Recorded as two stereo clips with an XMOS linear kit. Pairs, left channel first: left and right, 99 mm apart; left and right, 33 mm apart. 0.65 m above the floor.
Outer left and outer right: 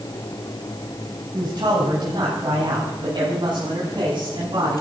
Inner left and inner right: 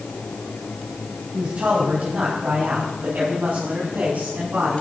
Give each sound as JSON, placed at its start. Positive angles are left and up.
{"t": 1.3, "sound": "a man speaking", "side_deg": -45, "distance_m": 5.0}